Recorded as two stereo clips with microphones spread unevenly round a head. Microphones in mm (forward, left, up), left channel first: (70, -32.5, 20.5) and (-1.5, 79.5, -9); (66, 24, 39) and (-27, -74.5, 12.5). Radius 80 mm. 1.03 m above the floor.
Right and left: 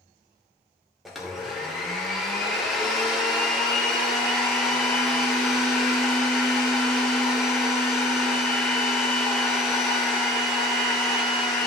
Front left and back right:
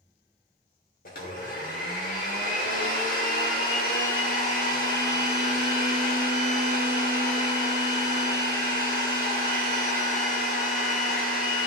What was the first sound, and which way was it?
A blender, 35° left.